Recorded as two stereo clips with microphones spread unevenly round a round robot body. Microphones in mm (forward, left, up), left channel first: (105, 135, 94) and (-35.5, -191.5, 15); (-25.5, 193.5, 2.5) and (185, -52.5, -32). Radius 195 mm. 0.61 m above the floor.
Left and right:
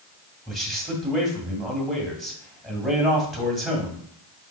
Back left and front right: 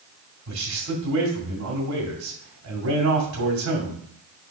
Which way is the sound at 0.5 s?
35° right.